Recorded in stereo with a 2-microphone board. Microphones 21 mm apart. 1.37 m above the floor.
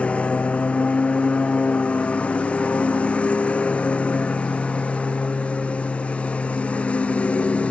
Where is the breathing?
No breathing in this recording.